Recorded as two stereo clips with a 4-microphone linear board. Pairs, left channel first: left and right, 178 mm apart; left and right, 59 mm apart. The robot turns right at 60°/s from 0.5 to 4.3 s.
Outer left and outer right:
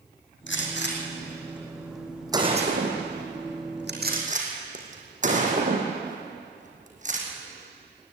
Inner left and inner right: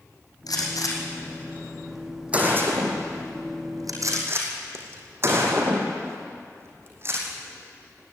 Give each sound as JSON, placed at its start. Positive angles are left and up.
{"t": 0.5, "sound": "a gunshot", "side_deg": 85, "distance_m": 4.0}